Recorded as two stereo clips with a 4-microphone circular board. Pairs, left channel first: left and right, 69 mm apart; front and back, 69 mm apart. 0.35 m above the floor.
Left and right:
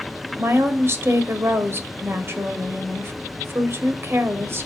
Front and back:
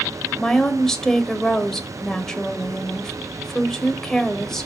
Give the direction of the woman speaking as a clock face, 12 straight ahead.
3 o'clock.